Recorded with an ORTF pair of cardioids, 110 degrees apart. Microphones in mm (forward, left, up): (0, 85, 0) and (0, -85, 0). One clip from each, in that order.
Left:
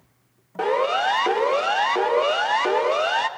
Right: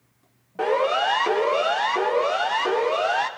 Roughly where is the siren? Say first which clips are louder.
Even; ahead.